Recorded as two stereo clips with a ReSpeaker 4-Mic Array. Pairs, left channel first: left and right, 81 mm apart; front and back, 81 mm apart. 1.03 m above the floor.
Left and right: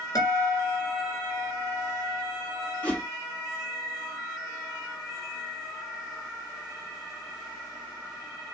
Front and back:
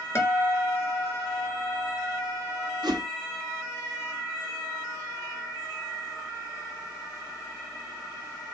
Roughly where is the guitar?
Ahead left.